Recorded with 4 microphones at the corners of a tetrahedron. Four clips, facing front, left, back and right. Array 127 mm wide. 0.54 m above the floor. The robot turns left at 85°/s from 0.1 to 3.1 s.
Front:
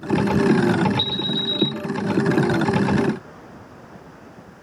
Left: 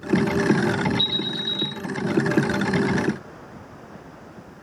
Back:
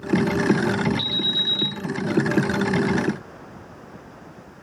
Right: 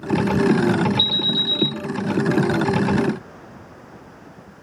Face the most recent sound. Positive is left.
turn(degrees=90)